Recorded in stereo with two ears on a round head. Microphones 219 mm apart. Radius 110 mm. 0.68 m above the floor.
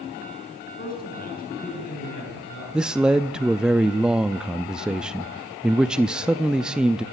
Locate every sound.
0.8 s a man speaking: 40° left (ahead or behind), 7.5 m
2.7 s a man speaking: 5° right (ahead or behind), 0.5 m